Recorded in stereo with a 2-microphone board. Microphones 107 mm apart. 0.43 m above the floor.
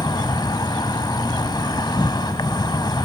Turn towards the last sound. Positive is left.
turn(degrees=40)  # may be behind; listen again after turning